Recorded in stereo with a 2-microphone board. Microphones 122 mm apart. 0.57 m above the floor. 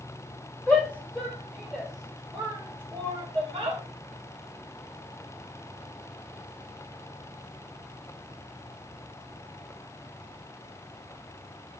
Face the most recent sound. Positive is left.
turn(degrees=-45)  # may be behind; listen again after turning